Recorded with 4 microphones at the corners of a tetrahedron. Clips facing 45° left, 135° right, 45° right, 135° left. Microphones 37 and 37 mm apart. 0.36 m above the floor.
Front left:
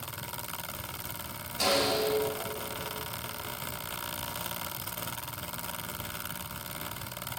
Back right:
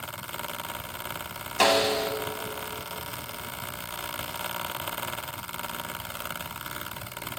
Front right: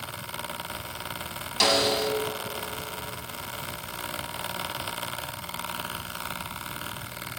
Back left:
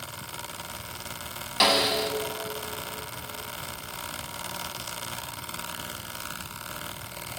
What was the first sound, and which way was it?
A snare drum, 155° right.